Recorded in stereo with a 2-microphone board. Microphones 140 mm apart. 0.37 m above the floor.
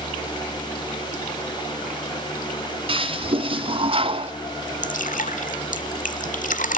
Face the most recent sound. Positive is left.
turn(degrees=65)  # may be behind; listen again after turning